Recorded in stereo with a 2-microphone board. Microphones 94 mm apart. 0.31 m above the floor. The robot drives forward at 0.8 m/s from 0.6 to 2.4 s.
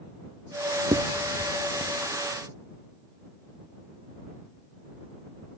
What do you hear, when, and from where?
0.9 s writing: 75° right (ahead or behind); by 1.9 s 90° right